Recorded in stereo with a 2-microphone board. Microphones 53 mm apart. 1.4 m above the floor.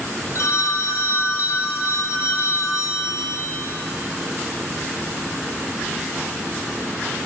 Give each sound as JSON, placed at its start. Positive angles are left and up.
{"t": 0.3, "sound": "a phone ringing", "side_deg": 55, "distance_m": 1.2}